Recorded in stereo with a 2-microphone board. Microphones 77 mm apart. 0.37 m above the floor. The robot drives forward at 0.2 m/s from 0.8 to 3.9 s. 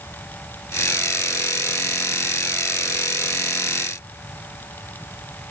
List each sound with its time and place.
Only background noise.